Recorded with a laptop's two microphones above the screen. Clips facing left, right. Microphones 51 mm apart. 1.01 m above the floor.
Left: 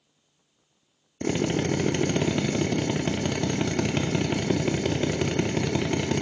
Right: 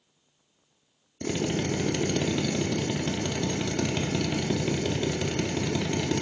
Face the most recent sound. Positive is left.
turn(degrees=25)  # may be behind; listen again after turning